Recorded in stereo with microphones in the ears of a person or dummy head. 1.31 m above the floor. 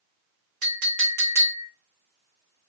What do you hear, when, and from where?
0.6 s a clink: 45° right (ahead or behind), 1.3 m